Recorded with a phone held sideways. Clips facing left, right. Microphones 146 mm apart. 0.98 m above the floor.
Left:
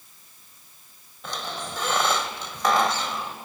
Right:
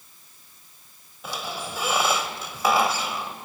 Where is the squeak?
10° right (ahead or behind), 1.2 m.